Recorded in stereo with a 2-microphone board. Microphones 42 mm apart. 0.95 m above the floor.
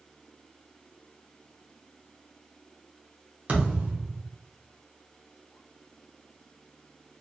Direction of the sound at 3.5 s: 35° right (ahead or behind).